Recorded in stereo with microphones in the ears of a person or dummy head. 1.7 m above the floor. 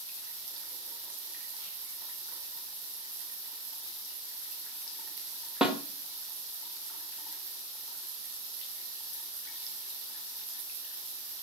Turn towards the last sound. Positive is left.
turn(degrees=0)  # may be behind; listen again after turning